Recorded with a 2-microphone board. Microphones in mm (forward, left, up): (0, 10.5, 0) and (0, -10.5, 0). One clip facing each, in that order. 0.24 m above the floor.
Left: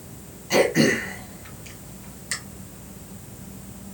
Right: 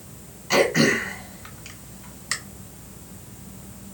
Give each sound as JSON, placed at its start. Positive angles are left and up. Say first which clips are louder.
{"t": 0.5, "sound": "throat clearing", "louder": "even", "side_deg": -25, "distance_m": 1.2}